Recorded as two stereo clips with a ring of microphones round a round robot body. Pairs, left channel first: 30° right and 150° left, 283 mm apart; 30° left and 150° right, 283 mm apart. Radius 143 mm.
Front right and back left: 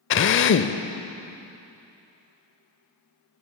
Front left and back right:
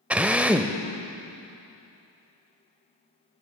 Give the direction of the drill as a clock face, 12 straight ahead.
2 o'clock.